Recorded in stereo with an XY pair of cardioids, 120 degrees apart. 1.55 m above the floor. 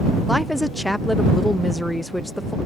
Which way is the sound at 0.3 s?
5° left.